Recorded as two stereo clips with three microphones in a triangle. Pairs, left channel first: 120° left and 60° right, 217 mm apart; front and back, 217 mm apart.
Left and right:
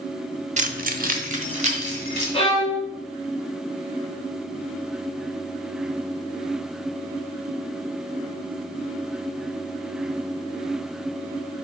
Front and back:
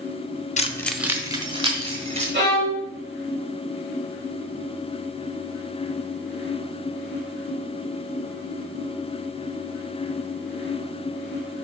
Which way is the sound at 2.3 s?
175° left.